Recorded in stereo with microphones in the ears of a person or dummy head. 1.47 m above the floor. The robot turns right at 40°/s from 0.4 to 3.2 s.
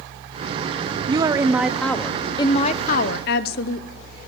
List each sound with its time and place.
1.1 s a woman speaking: 25° right, 0.9 m; by 3.9 s 60° left, 0.9 m